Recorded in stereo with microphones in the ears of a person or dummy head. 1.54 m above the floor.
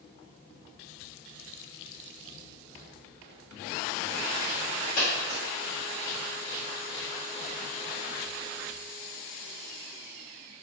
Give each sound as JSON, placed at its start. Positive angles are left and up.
{"t": 5.0, "sound": "a dropped coin", "side_deg": 35, "distance_m": 1.0}